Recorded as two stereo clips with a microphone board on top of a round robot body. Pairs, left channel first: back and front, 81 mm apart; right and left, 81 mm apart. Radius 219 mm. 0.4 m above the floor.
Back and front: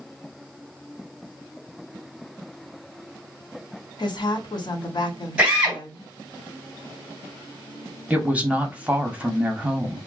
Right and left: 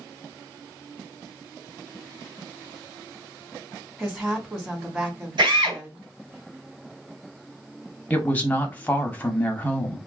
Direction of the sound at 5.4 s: 75° left.